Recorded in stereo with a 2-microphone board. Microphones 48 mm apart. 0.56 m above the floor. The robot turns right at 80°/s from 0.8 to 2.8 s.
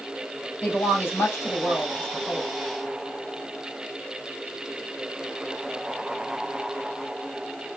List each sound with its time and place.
0.6 s a woman speaking: 45° left, 3 m; by 2.5 s straight behind, 3 m